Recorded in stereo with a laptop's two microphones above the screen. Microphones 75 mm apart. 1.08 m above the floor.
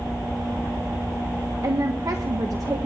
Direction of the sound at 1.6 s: 50° right (ahead or behind).